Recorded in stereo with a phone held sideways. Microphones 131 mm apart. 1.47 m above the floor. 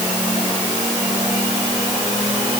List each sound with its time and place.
Only background noise.